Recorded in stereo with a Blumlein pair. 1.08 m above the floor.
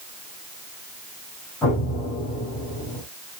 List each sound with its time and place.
1.6 s an explosion: 15° left, 4.5 m